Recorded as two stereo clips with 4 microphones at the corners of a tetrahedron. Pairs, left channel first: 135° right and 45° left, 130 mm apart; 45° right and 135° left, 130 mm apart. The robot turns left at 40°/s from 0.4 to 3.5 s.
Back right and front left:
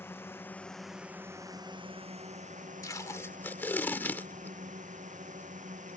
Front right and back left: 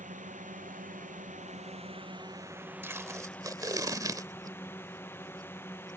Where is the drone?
150° left; by 6.0 s 25° left.